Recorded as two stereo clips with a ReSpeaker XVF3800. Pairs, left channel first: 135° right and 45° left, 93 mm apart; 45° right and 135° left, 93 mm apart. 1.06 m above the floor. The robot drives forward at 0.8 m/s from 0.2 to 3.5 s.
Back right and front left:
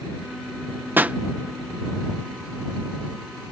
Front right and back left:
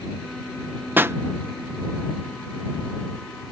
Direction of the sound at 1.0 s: 90° left.